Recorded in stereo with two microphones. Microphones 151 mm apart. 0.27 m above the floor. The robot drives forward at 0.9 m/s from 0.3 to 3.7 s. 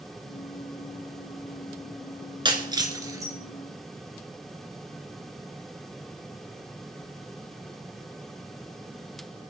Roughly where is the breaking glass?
Right.